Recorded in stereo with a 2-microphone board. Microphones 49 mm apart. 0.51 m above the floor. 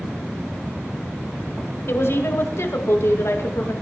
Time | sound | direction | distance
1.9 | a woman speaking | 60° left (ahead or behind) | 2.5 m